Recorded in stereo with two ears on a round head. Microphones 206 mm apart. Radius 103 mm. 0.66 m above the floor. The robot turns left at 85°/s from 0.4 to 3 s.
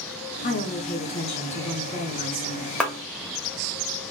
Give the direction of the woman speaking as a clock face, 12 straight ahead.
8 o'clock.